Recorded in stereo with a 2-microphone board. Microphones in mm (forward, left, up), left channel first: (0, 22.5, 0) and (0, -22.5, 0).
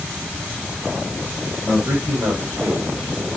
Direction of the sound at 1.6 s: 70° right (ahead or behind).